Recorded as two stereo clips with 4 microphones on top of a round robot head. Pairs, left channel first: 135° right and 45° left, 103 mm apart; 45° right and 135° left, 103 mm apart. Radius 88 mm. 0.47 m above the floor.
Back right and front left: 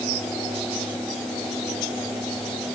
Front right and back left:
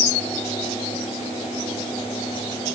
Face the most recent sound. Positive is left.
No sound to turn to.